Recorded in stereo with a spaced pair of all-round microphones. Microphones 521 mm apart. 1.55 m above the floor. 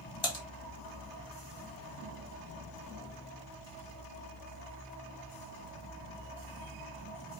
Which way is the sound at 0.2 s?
70° left (ahead or behind).